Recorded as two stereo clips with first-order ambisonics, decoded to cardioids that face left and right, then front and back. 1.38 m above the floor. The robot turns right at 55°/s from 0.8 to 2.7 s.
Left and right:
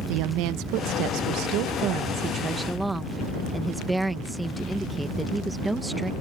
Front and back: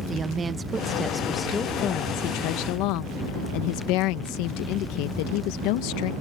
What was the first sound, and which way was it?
A woman speaking, 110° right.